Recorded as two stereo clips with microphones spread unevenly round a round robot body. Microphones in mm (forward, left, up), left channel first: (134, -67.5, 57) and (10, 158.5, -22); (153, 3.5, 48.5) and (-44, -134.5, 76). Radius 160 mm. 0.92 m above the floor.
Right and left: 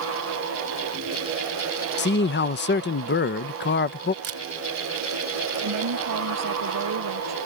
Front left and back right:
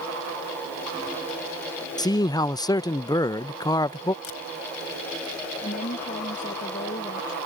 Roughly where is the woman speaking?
Left.